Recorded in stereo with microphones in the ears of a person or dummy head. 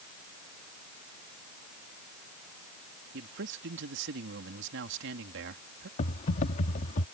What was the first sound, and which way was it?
A man speaking, 65° right (ahead or behind).